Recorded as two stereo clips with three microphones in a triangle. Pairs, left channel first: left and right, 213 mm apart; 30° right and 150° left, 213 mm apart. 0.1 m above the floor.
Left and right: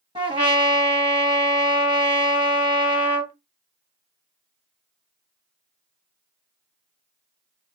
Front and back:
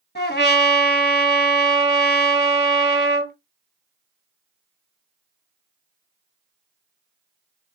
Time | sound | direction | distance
0.1 | a trumpet | 35° right | 1.5 m